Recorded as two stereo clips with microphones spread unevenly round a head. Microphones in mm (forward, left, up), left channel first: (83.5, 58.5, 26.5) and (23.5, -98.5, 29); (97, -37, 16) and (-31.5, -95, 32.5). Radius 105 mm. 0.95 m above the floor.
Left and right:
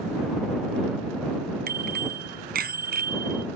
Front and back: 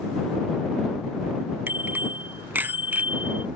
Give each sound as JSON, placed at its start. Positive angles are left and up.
{"t": 1.7, "sound": "a bicycle bell", "azimuth_deg": -80}